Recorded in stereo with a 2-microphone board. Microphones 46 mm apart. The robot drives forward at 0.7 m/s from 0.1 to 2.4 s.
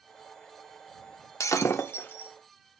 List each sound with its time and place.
1.4 s breaking glass: 85° left, 0.6 m; by 2.3 s 40° left (ahead or behind), 0.9 m